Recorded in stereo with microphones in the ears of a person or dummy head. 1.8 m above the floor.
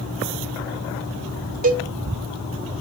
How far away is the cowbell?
About 0.7 m.